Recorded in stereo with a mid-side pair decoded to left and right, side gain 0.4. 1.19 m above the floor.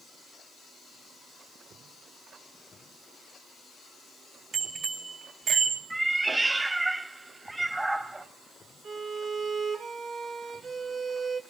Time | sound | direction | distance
4.5 | a bicycle bell | 60° right | 3.5 m
5.9 | a cat meowing | 15° right | 1.4 m
8.8 | a violin | 70° right | 3.5 m